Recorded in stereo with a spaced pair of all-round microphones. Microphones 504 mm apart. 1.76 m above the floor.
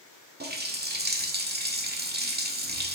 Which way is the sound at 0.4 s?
20° right (ahead or behind).